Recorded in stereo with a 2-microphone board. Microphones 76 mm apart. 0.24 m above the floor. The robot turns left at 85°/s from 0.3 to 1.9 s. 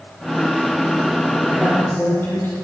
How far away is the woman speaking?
About 6.5 m.